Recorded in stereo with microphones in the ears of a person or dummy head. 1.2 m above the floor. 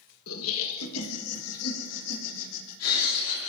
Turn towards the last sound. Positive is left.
turn(degrees=85)